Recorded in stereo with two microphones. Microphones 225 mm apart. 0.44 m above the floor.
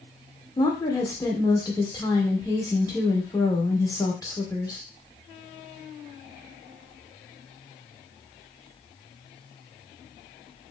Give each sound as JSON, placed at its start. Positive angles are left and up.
{"t": 0.6, "sound": "a woman speaking", "side_deg": 15, "distance_m": 0.9}